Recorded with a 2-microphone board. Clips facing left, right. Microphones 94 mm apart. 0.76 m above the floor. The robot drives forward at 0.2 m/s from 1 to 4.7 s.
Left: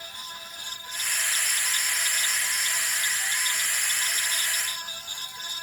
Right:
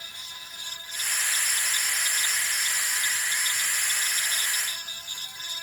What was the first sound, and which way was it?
Only background noise.